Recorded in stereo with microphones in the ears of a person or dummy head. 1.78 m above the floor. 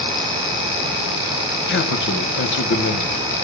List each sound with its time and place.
1.7 s a man speaking: 60° left (ahead or behind), 1.9 m